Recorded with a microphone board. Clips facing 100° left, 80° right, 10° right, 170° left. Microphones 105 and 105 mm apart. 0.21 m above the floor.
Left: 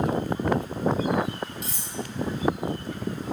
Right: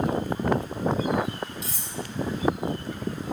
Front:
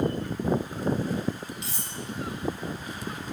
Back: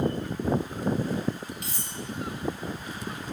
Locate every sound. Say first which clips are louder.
1.6 s cutlery clinking: even, even; 130° left, 4 m